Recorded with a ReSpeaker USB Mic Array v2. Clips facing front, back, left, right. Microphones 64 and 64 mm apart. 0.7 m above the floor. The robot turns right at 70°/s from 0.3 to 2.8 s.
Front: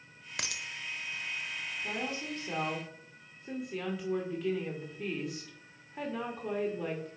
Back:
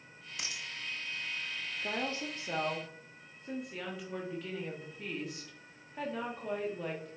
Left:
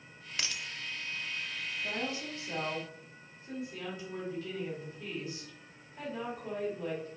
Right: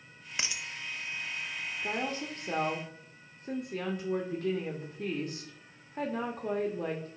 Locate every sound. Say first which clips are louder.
0.4 s a dropped coin: front 3 dB, right 1 dB; 20° right, 0.7 m; by 0.7 s straight ahead, 0.7 m
1.8 s a woman speaking: back 2 dB, right 3 dB; 155° right, 1.1 m; by 7.1 s 90° right, 1.1 m